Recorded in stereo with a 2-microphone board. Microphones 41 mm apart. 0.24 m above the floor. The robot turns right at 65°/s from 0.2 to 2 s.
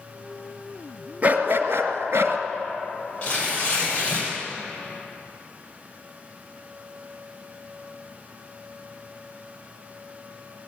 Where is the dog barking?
135° right, 1.6 m; by 2.4 s 85° right, 1.6 m.